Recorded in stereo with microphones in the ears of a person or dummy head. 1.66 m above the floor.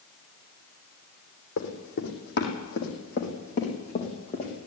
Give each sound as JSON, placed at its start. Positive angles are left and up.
{"t": 1.6, "sound": "running footsteps", "side_deg": 65, "distance_m": 6.0}